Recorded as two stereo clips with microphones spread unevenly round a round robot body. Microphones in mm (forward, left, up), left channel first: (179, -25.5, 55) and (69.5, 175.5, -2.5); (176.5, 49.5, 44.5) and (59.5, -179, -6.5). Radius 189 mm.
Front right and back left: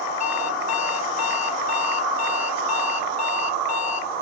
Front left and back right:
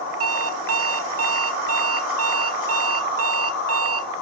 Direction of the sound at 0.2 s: 85° right.